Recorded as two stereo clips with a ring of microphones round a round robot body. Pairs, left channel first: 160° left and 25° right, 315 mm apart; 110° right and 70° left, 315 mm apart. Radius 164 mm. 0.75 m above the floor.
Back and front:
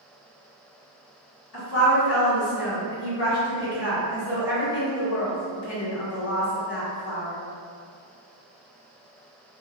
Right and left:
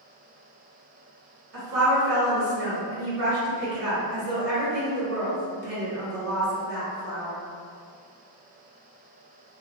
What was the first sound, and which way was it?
A woman speaking, 115° left.